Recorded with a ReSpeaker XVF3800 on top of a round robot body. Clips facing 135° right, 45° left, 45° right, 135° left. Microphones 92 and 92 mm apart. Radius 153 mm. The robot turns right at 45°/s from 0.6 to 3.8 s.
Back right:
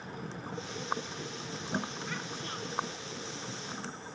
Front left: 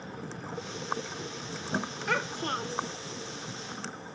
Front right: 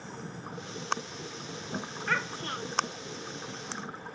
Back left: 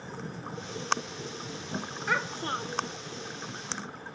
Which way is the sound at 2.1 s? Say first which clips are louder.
Front left 9 dB, back left 2 dB; 55° left.